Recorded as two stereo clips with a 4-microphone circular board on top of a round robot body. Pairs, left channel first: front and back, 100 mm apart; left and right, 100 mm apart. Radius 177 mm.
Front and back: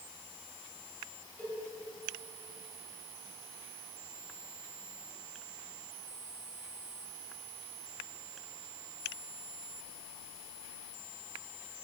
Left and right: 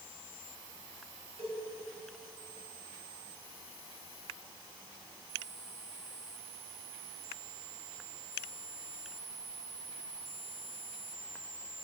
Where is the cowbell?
75° right, 3.5 m.